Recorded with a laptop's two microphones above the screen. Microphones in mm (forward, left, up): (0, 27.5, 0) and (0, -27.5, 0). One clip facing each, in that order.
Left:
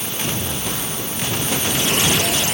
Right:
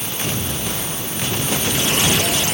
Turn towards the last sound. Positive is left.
No sound to turn to.